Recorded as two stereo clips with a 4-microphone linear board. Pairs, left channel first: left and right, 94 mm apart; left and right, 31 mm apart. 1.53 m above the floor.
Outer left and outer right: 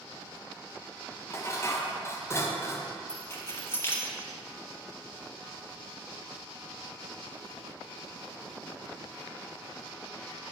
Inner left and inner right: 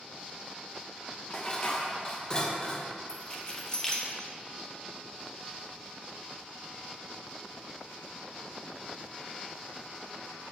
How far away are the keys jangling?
About 0.8 m.